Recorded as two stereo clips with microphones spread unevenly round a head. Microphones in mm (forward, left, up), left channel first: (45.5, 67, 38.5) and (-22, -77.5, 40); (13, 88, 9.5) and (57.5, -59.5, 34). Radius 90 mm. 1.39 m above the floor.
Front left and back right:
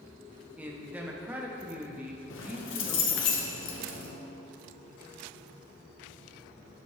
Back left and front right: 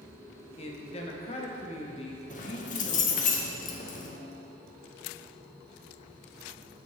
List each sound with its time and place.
0.6 s a man speaking: 165° left, 0.8 m
2.3 s keys jangling: 65° left, 0.7 m